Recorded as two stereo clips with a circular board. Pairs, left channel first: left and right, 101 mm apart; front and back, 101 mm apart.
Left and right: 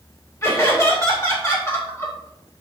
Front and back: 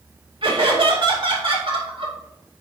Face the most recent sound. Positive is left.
turn(degrees=150)